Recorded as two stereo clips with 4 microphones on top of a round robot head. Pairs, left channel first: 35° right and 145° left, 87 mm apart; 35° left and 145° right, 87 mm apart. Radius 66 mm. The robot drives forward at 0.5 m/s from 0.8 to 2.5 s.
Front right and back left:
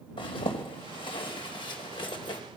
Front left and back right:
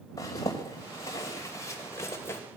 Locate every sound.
0.2 s a zipper: 15° right, 3 m; by 2.4 s 20° right, 2.5 m